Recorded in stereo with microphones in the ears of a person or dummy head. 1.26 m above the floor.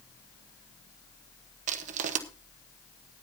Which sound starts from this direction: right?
Crushing, at 1.7 s.